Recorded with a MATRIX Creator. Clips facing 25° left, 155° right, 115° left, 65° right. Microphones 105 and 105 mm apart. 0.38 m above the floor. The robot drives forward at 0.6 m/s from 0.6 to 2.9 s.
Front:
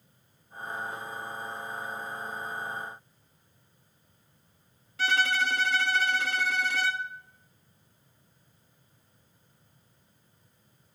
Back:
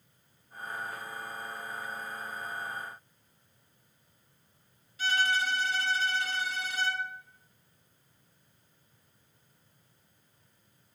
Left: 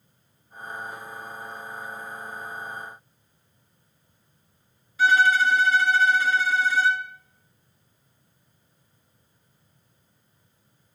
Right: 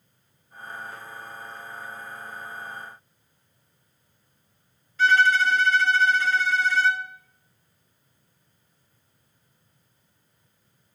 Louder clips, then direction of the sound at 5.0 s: Front 2 dB, even; 35° left.